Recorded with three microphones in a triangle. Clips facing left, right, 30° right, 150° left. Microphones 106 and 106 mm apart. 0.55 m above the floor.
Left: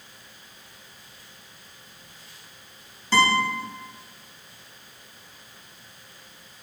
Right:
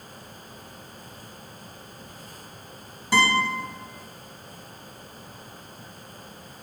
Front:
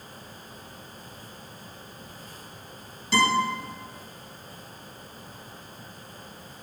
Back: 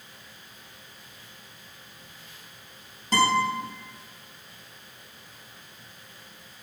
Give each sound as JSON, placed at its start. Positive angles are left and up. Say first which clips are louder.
{"t": 3.1, "sound": "a guitar", "louder": "left 1 dB, even", "azimuth_deg": -165, "distance_m": 4.0}